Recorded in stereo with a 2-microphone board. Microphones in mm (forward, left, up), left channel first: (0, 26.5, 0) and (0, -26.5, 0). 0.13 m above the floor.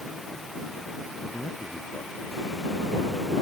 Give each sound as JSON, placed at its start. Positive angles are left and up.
{"t": 1.2, "sound": "a man speaking", "side_deg": 40}